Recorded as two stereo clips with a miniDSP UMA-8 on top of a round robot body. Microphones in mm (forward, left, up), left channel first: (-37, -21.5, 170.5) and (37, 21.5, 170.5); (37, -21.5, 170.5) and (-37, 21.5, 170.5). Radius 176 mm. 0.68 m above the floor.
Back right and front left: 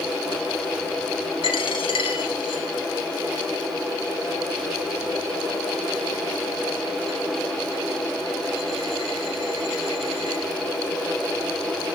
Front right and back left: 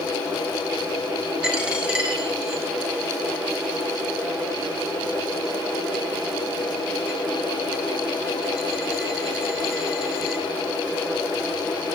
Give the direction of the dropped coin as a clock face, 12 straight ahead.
4 o'clock.